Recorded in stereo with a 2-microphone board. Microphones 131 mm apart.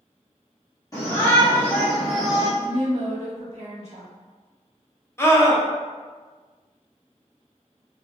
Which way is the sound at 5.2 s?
20° left (ahead or behind).